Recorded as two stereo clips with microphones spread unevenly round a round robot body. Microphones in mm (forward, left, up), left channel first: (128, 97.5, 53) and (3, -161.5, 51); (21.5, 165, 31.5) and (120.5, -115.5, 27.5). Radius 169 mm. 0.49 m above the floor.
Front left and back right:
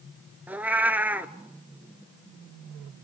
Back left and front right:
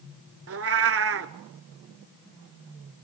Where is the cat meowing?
30° right, 0.7 m.